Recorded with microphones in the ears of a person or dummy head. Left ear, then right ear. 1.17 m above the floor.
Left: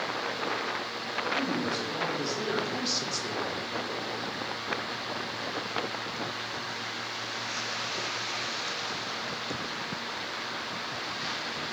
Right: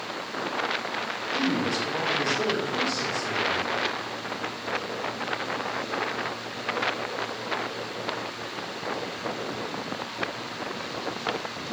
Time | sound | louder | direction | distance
1.3 | a man speaking | right 7 dB | 10° right (ahead or behind) | 2.5 m